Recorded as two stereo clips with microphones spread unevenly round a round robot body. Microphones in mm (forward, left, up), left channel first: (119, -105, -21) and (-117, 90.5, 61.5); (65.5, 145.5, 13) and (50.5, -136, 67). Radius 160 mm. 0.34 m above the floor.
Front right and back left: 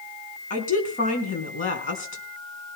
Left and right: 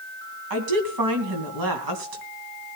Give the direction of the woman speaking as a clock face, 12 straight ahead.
3 o'clock.